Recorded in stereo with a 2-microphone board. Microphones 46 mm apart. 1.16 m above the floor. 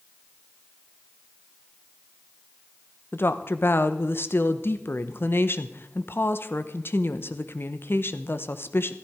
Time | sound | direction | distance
3.1 | a woman speaking | 55° left (ahead or behind) | 1.1 m